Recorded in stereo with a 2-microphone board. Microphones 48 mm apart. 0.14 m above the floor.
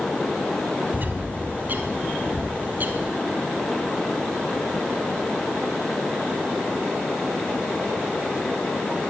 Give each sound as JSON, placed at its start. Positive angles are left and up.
{"t": 0.9, "sound": "a bird", "side_deg": -40, "distance_m": 2.5}